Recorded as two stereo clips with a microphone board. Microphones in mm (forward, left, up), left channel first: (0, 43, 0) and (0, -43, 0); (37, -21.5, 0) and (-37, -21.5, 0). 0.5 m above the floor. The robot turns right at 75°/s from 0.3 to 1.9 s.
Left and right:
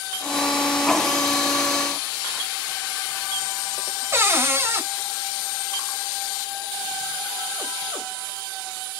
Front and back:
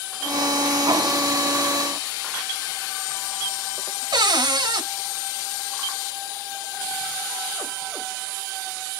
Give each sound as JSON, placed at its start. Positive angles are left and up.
{"t": 4.1, "sound": "a cupboard door", "azimuth_deg": -150, "distance_m": 1.4}